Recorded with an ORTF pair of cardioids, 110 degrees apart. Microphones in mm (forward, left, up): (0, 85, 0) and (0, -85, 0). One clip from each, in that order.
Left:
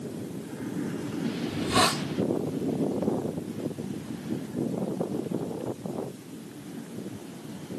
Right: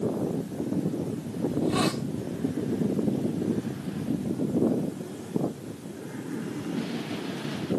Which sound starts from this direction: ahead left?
A hiss, at 1.5 s.